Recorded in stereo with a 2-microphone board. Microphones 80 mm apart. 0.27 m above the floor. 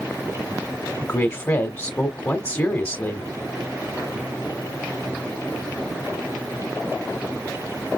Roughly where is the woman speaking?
Left.